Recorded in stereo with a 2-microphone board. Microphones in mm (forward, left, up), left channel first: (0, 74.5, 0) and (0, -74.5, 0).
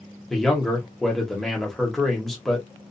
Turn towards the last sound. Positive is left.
turn(degrees=0)  # may be behind; listen again after turning